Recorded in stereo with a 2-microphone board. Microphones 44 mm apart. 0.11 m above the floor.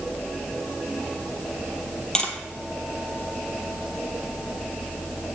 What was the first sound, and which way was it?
Tapping, 20° left (ahead or behind).